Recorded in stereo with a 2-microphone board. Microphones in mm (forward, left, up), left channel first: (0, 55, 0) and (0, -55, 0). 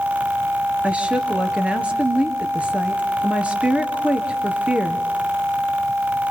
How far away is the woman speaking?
About 2.5 m.